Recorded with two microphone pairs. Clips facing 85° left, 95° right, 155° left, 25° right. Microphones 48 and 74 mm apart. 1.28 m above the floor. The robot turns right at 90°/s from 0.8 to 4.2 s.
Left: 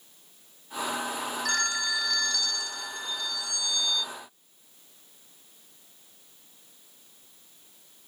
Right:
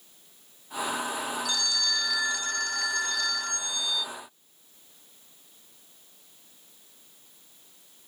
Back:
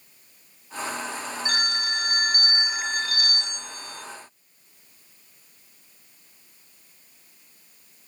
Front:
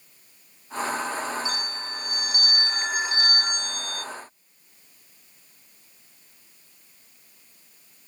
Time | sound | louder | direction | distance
1.4 | a phone ringing | left 2 dB, back 4 dB | 120° left | ?